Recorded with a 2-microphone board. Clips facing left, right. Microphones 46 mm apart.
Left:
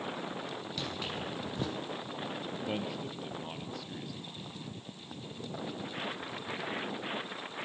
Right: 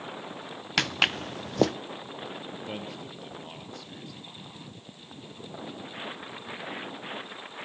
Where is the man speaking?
Centre (ahead or behind), 1.9 m.